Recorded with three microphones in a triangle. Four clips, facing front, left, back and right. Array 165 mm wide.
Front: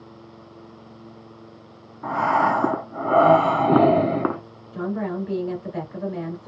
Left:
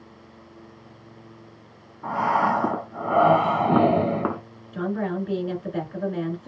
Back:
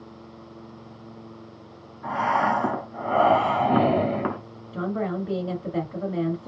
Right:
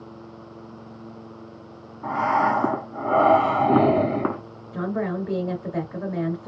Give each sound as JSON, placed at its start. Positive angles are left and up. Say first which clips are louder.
{"t": 2.0, "sound": "breathing", "louder": "right 1 dB, front 3 dB", "azimuth_deg": 0, "distance_m": 0.9}
{"t": 4.7, "sound": "a woman speaking", "louder": "even, front 1 dB", "azimuth_deg": -135, "distance_m": 2.0}